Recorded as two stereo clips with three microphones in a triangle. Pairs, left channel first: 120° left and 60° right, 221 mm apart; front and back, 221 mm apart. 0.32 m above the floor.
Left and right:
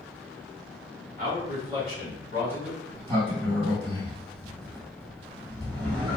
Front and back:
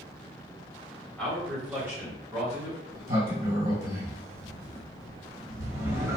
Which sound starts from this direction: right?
A man speaking, at 1.2 s.